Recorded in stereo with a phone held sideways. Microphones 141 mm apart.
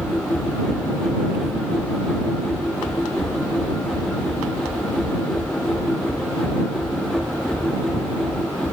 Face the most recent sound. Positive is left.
turn(degrees=5)  # may be behind; listen again after turning